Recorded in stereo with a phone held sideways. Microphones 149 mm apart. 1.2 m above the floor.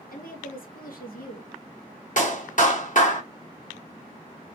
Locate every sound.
0.1 s a woman speaking: 80° left, 1.6 m
2.2 s a clap: 65° left (ahead or behind), 1.9 m